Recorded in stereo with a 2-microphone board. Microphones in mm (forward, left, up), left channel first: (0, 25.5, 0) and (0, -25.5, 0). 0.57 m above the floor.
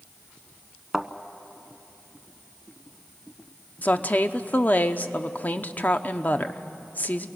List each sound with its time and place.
0.9 s a thud: 10° right (ahead or behind), 0.8 m
3.8 s a woman speaking: 35° left (ahead or behind), 0.8 m